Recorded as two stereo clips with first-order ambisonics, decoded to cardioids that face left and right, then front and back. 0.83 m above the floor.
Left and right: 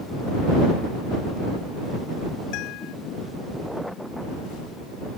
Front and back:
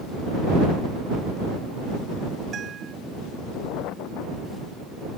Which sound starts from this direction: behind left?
A guitar, at 2.5 s.